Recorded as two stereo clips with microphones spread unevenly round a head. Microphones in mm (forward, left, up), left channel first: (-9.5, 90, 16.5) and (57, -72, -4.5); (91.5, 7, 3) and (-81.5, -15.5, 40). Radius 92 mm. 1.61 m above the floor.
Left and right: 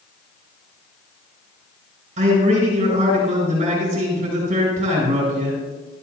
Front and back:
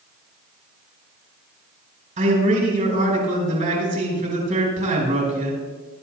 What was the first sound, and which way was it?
A man speaking, 125° right.